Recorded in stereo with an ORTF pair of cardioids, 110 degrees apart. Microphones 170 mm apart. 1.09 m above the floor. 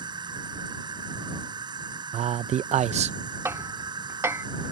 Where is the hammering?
15° right.